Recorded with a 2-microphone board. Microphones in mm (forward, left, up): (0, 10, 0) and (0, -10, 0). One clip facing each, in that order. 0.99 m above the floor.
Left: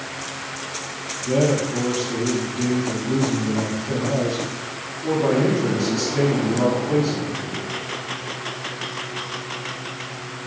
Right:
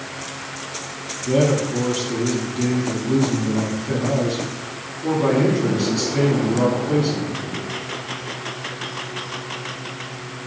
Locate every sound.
1.3 s a man speaking: 35° right (ahead or behind), 2.5 m